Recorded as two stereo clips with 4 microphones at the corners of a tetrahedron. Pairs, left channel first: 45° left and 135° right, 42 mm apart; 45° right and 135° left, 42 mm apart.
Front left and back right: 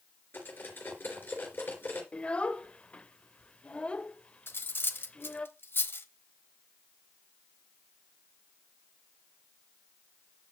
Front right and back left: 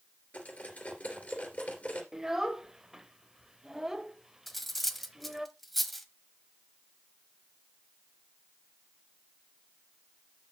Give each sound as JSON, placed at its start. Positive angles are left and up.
{"t": 0.3, "sound": "cutlery clinking", "azimuth_deg": 10, "distance_m": 3.0}
{"t": 2.1, "sound": "a child speaking", "azimuth_deg": 65, "distance_m": 0.6}
{"t": 4.5, "sound": "cutlery clinking", "azimuth_deg": 40, "distance_m": 0.9}